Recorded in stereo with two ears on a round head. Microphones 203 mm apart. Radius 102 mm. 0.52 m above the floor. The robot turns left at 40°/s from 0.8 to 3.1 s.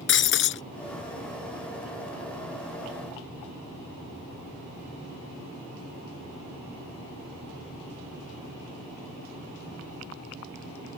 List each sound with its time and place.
0.1 s breaking glass: 55° left (ahead or behind)